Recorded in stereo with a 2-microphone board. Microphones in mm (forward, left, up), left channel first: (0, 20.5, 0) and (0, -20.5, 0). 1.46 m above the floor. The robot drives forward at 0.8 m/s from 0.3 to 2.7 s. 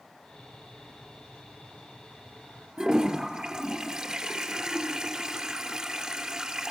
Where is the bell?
No bell in this recording.